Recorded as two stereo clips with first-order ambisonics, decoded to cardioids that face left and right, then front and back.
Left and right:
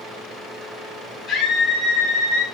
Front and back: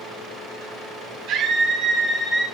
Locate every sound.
1.3 s a scream: 160° left, 1.4 m; by 2.5 s 75° left, 1.0 m